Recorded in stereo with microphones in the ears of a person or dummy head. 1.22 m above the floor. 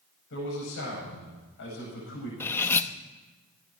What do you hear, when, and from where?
0.3 s a man speaking: 65° left (ahead or behind), 9 m
2.4 s cutlery clinking: 10° left (ahead or behind), 0.7 m